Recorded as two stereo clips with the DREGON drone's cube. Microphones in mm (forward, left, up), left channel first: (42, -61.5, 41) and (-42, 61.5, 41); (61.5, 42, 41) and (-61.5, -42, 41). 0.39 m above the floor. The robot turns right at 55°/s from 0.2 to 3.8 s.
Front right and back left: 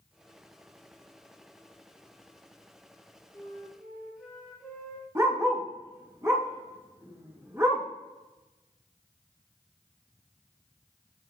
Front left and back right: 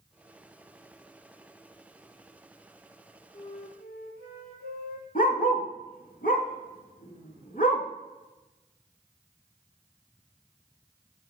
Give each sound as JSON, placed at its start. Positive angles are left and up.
{"t": 3.3, "sound": "a flute", "azimuth_deg": 10, "distance_m": 3.0}
{"t": 5.2, "sound": "a dog barking", "azimuth_deg": 55, "distance_m": 1.7}